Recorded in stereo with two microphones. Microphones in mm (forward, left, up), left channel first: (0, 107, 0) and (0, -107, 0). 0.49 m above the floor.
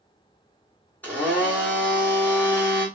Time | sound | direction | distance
1.0 | a blender | 10° left (ahead or behind) | 1.3 m